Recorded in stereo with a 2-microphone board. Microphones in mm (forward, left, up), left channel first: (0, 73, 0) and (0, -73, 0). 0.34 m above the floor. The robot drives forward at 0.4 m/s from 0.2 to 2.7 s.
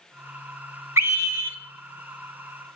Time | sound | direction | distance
1.0 | a scream | 20° right (ahead or behind) | 1.6 m